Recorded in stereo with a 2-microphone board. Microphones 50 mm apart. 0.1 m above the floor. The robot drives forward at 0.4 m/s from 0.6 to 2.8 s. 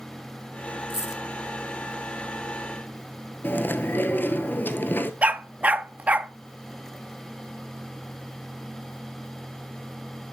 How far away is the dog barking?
About 0.5 m.